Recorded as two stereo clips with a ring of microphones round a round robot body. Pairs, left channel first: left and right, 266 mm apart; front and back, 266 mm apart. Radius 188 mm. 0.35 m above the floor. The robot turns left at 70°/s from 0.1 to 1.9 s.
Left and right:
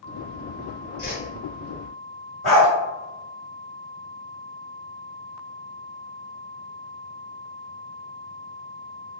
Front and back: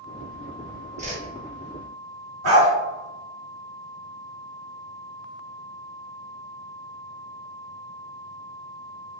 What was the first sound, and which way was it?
A whoosh, 160° right.